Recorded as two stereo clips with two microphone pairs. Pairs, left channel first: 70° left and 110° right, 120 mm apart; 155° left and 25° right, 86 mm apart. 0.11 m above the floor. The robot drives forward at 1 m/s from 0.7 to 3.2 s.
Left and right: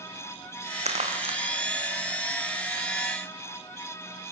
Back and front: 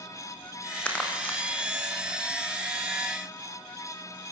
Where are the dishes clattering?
I don't hear dishes clattering.